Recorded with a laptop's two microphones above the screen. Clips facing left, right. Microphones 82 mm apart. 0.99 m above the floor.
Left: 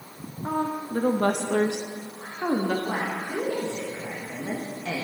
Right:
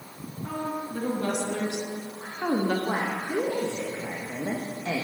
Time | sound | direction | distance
0.4 | a woman speaking | 40° left (ahead or behind) | 2 m
2.9 | a woman speaking | 20° right (ahead or behind) | 1.2 m